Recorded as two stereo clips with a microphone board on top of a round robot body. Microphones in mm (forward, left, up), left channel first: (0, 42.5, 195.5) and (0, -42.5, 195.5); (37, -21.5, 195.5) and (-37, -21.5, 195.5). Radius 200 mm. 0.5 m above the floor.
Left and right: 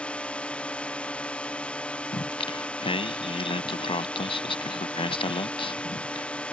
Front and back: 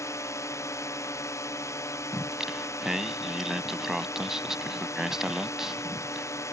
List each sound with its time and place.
0.0 s a drone: 20° left
2.1 s singing: 95° left